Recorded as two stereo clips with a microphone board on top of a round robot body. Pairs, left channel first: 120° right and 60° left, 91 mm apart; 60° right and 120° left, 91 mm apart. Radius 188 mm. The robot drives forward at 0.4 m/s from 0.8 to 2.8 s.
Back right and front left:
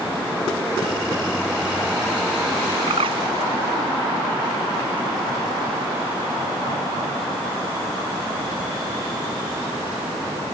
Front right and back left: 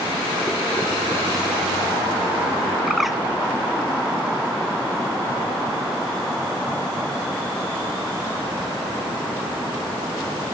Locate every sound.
2.9 s a bird: 30° left